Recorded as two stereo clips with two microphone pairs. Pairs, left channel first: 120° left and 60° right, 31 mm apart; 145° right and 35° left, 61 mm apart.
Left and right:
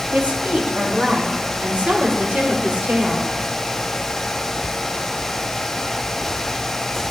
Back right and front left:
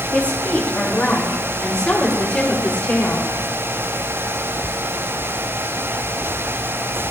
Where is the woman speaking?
75° right, 1.9 m; by 3.3 s 70° right, 3.5 m.